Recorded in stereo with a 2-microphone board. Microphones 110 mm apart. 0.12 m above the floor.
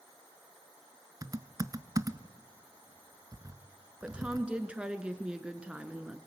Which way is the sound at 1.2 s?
35° right (ahead or behind).